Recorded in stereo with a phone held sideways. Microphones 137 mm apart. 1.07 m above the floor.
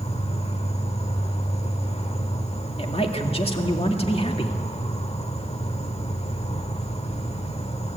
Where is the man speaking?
45° left (ahead or behind), 1.9 m.